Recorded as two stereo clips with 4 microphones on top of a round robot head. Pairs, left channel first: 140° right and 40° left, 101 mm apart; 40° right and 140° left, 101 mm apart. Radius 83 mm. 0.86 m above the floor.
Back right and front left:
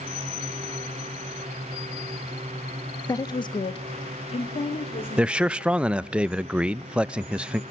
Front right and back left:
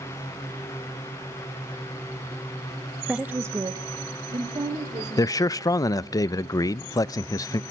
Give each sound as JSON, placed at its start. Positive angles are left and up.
{"t": 3.1, "sound": "a woman speaking", "azimuth_deg": -140, "distance_m": 0.6}
{"t": 5.2, "sound": "a man speaking", "azimuth_deg": -35, "distance_m": 0.5}